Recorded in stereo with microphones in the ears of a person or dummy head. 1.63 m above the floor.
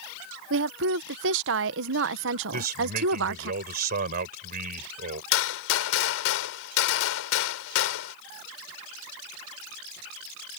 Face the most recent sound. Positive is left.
turn(degrees=80)